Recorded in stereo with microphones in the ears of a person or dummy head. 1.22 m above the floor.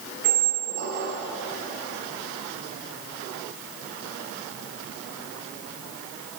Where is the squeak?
60° right (ahead or behind), 2 m.